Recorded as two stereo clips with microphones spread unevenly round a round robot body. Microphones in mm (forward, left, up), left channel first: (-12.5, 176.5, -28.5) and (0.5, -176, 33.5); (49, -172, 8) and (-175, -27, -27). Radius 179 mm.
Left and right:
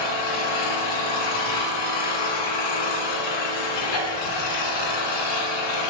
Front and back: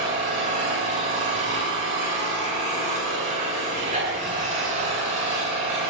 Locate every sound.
0.0 s an engine running: 75° left, 9.5 m